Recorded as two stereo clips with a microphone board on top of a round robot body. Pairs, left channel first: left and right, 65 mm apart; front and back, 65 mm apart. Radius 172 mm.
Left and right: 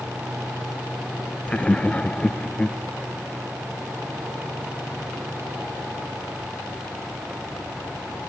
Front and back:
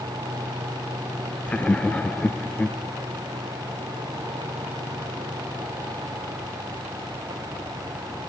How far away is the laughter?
About 0.9 m.